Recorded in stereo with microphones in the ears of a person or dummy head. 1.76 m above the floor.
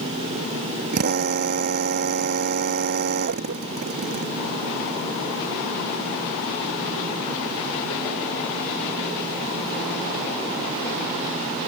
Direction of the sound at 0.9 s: 50° right (ahead or behind).